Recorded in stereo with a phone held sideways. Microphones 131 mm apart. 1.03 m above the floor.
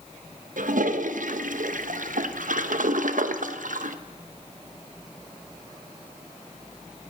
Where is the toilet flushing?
90° right, 0.6 m.